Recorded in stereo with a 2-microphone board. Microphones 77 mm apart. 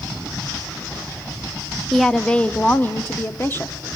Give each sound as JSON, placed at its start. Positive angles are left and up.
{"t": 1.9, "sound": "a woman speaking", "side_deg": 0, "distance_m": 0.6}